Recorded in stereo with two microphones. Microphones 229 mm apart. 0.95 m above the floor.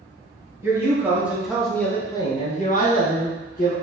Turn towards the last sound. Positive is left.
turn(degrees=40)  # may be behind; listen again after turning